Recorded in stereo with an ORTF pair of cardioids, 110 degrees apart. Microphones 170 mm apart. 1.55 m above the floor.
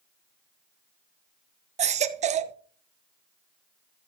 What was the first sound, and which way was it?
A baby crying, 45° right.